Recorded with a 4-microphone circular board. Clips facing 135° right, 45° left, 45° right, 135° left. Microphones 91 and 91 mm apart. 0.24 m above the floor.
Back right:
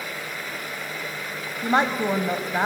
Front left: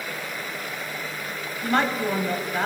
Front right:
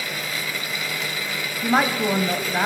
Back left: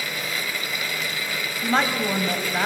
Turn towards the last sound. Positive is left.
turn(degrees=-105)